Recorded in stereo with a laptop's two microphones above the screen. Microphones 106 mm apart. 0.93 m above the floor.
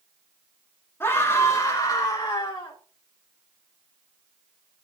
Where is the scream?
25° left (ahead or behind), 2 m; by 2.8 s 50° left (ahead or behind), 1.7 m.